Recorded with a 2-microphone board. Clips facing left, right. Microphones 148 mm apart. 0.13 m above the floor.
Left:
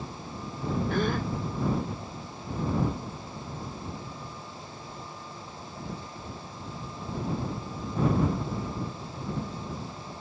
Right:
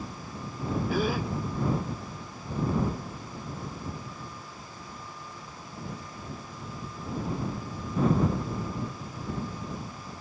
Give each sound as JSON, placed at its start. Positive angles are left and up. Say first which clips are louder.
{"t": 0.9, "sound": "a gasp", "louder": "right 1 dB", "side_deg": -5}